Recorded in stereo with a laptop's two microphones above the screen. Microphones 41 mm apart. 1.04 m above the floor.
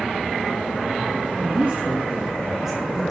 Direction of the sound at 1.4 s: 50° right (ahead or behind).